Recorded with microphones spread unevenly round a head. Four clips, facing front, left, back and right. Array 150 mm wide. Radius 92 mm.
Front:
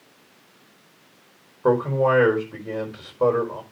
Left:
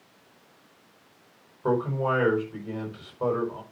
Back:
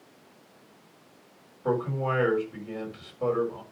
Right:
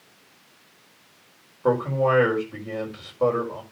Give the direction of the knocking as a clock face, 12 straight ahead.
No knocking in this recording.